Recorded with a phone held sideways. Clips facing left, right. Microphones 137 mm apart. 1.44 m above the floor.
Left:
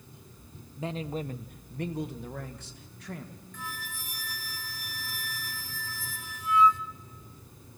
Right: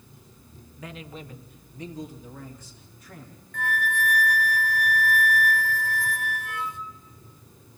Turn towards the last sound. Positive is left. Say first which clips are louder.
# right 15 dB
turn(degrees=-65)  # may be behind; listen again after turning